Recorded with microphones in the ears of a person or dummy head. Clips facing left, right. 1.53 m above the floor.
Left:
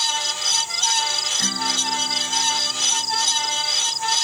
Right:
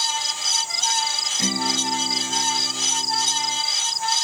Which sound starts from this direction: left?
A fan, at 0.0 s.